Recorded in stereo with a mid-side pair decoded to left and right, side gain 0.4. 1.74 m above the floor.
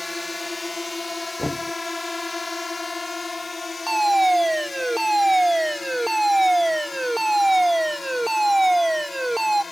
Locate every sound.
0.0 s a drone: 20° left; by 9.7 s 40° left
1.4 s knocking: 15° left
3.9 s a fire alarm: 5° right